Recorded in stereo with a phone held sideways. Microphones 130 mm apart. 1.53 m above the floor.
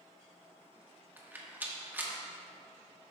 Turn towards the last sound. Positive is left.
turn(degrees=-15)  # may be behind; listen again after turning